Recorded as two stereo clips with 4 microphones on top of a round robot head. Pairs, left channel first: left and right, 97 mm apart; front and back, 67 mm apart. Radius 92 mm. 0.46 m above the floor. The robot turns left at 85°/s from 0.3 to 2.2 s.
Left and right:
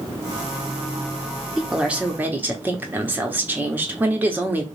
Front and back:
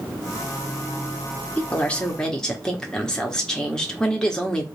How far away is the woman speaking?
About 0.9 m.